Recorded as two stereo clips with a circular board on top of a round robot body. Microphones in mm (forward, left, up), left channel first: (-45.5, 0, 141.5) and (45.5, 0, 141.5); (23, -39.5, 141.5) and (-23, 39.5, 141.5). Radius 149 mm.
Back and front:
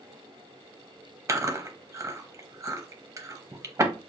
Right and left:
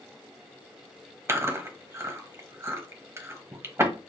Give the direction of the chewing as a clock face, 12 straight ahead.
10 o'clock.